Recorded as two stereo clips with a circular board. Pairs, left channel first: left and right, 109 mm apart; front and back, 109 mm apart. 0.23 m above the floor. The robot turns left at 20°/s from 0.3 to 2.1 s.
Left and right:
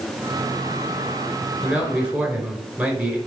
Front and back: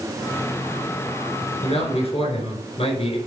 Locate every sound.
1.6 s a man speaking: 5° right, 3.5 m; by 3.2 s 15° right, 3.5 m